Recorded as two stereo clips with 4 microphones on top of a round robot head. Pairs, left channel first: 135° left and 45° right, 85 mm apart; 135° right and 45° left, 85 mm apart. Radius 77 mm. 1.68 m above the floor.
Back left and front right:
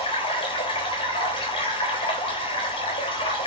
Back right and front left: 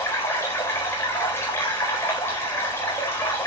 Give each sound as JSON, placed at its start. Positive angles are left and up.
{"t": 0.0, "sound": "running water", "azimuth_deg": 160, "distance_m": 4.0}